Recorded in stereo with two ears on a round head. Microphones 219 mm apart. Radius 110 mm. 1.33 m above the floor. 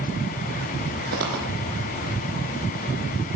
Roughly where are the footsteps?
Right.